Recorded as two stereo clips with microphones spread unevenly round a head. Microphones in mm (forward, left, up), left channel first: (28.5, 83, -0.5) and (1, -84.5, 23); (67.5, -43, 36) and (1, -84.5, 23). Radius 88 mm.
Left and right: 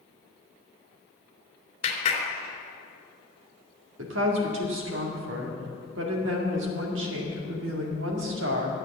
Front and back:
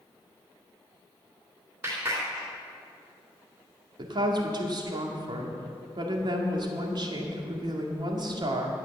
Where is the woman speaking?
120° right, 2 m.